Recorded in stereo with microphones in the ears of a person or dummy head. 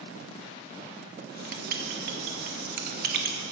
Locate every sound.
1.2 s writing: 60° right (ahead or behind), 1.0 m